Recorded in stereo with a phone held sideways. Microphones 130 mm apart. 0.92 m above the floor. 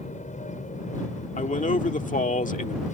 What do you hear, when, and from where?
0.0 s an aircraft: 70° left (ahead or behind)
1.4 s a man speaking: 80° left